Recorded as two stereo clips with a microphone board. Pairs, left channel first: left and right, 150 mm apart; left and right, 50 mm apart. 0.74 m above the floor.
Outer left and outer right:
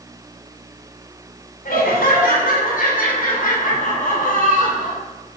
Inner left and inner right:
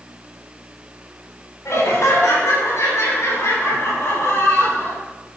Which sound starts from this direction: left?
Laughter, at 1.6 s.